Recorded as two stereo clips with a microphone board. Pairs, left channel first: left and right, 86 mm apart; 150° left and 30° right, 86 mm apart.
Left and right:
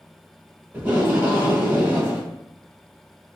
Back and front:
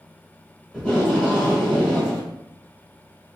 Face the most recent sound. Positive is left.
turn(degrees=-140)